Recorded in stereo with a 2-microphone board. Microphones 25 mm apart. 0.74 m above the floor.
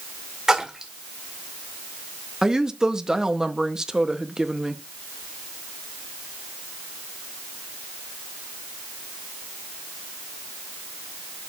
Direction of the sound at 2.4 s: 25° right (ahead or behind).